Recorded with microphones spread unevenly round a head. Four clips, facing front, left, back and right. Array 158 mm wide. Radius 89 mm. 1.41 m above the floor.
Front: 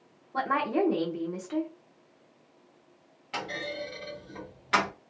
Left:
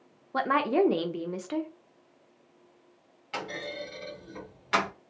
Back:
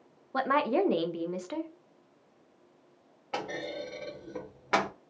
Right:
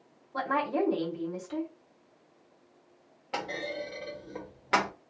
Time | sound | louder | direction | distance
0.3 | a woman speaking | left 4 dB, back 1 dB | 120° left | 0.7 m
3.3 | a clunk | right 2 dB, even | 145° right | 0.9 m